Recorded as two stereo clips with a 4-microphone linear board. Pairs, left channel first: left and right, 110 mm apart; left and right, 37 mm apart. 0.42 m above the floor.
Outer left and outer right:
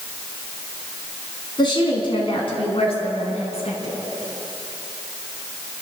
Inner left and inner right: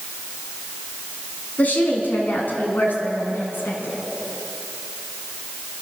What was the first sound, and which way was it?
A woman speaking, 45° left (ahead or behind).